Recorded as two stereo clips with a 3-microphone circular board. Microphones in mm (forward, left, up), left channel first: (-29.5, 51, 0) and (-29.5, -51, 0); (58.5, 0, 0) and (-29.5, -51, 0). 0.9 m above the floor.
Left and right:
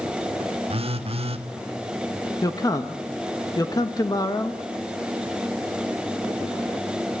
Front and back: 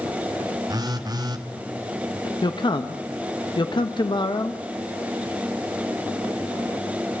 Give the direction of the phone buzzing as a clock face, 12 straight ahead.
3 o'clock.